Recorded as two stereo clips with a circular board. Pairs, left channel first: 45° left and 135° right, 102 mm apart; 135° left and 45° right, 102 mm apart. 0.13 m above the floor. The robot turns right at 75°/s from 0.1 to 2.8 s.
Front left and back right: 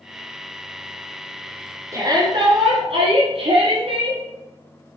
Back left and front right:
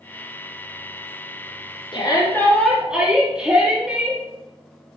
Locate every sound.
1.9 s a shout: 165° left, 5 m; by 4.2 s 125° right, 5 m